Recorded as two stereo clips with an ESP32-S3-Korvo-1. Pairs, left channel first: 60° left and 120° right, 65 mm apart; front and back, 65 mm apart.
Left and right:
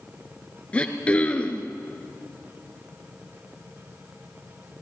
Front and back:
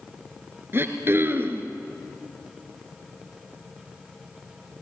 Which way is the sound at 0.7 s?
130° left.